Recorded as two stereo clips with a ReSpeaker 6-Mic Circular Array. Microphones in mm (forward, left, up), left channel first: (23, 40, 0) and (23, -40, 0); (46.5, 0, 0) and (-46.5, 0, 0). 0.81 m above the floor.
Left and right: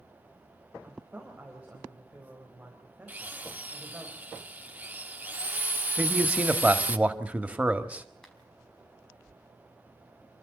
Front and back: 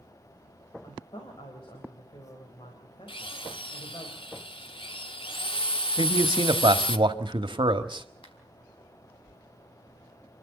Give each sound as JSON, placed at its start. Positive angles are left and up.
{"t": 0.8, "sound": "a woman speaking", "azimuth_deg": -20, "distance_m": 3.5}
{"t": 3.1, "sound": "a drill", "azimuth_deg": -20, "distance_m": 0.9}
{"t": 6.0, "sound": "a man speaking", "azimuth_deg": -160, "distance_m": 1.6}
{"t": 8.2, "sound": "a finger snap", "azimuth_deg": 5, "distance_m": 5.0}